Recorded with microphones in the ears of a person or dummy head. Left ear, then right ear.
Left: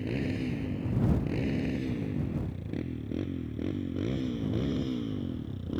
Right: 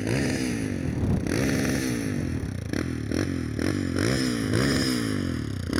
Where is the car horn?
I don't hear a car horn.